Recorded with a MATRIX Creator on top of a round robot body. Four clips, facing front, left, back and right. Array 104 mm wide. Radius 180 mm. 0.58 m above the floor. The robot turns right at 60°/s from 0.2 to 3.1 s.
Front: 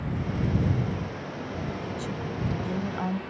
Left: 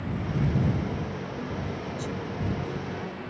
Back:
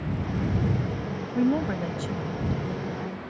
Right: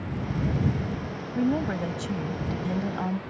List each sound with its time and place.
1.4 s a woman speaking: 150° right; by 3.2 s 45° right